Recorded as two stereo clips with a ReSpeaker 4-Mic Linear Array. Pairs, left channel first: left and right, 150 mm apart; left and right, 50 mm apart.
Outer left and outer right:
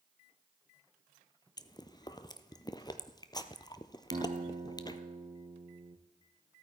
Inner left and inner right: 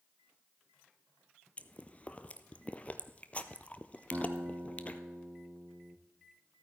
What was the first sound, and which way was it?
Chewing, 30° left (ahead or behind).